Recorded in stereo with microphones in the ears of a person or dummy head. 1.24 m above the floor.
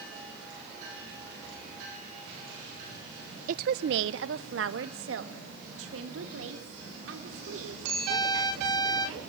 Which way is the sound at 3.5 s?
50° right (ahead or behind).